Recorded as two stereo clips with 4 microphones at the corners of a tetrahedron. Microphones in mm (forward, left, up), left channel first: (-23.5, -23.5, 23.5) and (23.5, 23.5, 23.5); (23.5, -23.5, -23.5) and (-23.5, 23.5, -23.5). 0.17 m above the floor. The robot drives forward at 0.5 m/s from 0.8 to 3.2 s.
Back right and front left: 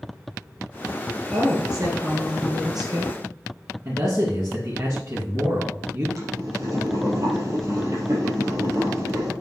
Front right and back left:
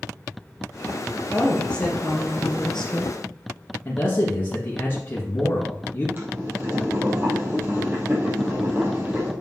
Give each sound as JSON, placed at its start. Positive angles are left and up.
{"t": 1.3, "sound": "a woman speaking", "azimuth_deg": 25, "distance_m": 3.5}
{"t": 3.9, "sound": "a man speaking", "azimuth_deg": 10, "distance_m": 2.5}
{"t": 6.2, "sound": "boiling", "azimuth_deg": 80, "distance_m": 3.5}